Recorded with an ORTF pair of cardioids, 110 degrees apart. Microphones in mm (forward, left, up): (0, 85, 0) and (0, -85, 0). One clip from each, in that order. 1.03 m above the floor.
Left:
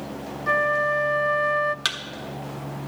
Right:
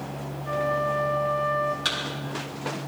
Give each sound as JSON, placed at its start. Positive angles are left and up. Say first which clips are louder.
{"t": 0.5, "sound": "a flute", "louder": "left 5 dB", "azimuth_deg": 45, "distance_m": 0.5}
{"t": 1.9, "sound": "a thud", "louder": "left 1 dB", "azimuth_deg": 65, "distance_m": 1.3}